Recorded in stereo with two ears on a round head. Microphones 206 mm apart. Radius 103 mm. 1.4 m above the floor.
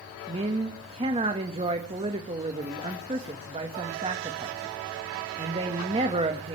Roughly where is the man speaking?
Right.